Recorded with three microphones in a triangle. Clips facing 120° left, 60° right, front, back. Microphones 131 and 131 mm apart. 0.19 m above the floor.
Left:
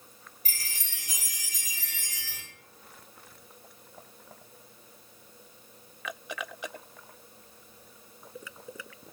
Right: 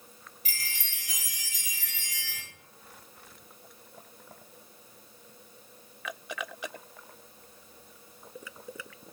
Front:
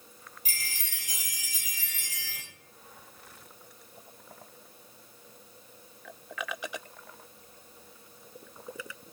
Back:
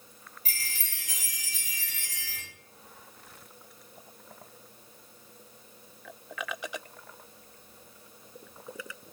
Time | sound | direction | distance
0.5 | a chime | 75° left | 1.4 m